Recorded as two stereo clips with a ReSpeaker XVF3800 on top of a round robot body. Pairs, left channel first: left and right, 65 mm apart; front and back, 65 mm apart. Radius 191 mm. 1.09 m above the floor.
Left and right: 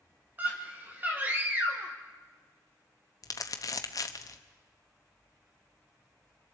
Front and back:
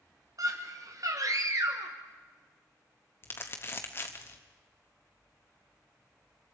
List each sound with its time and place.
0.4 s a scream: 155° right, 1.6 m
3.2 s crumpling: 55° left, 0.9 m